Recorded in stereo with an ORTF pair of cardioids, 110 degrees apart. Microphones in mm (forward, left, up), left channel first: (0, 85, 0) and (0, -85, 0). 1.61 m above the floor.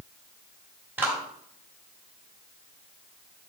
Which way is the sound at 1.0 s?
10° right.